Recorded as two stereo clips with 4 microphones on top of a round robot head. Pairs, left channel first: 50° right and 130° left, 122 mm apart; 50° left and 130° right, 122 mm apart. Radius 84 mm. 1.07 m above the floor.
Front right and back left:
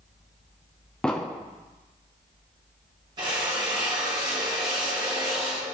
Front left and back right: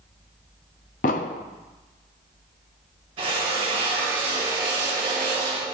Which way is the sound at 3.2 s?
175° right.